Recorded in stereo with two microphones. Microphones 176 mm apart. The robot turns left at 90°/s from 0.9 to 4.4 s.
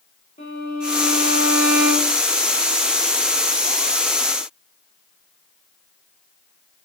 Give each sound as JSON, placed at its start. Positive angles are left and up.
{"t": 0.4, "sound": "a violin", "azimuth_deg": 80, "distance_m": 0.9}